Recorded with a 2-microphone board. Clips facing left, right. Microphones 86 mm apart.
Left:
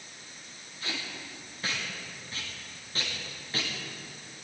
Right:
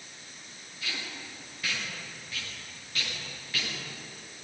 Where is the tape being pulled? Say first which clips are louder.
Left 1 dB; 35° left (ahead or behind), 8 m.